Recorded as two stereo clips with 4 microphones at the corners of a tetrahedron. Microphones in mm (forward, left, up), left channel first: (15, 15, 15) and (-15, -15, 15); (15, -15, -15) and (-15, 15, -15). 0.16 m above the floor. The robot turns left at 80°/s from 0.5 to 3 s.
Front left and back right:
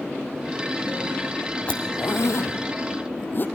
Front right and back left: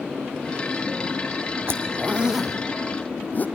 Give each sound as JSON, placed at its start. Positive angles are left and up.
{"t": 1.7, "sound": "a zipper", "azimuth_deg": 110, "distance_m": 0.9}